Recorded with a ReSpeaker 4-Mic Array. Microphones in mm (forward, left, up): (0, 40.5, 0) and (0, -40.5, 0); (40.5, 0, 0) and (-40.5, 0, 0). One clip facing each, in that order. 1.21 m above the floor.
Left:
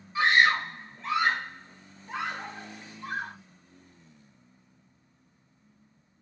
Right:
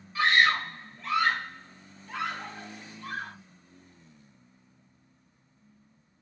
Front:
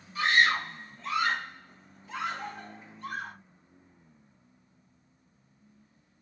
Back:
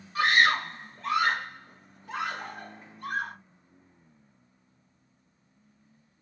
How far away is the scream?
About 1.2 m.